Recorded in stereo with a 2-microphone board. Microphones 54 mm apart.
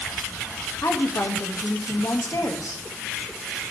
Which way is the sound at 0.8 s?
70° left (ahead or behind).